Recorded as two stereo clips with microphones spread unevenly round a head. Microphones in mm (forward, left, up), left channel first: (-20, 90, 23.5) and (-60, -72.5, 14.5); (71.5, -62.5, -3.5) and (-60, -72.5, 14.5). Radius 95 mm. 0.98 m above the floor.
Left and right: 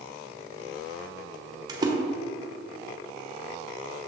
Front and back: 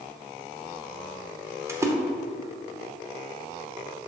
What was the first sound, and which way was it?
A splash, 120° right.